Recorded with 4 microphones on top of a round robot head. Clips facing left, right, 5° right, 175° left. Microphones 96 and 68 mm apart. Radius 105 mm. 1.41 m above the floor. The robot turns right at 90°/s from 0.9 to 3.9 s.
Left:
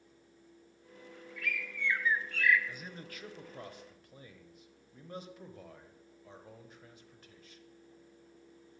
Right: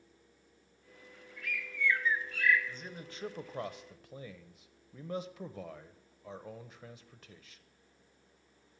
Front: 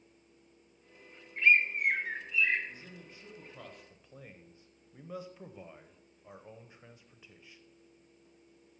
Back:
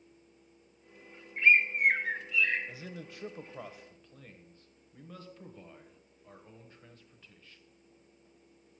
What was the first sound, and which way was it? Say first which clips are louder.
A bird: right 1 dB, back 1 dB; 105° left.